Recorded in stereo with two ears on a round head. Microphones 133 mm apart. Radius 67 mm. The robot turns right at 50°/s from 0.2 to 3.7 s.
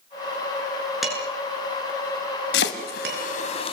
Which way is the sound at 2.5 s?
80° left.